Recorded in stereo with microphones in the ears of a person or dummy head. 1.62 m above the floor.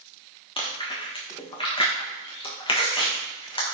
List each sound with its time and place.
0.6 s chewing: 25° left (ahead or behind), 1.4 m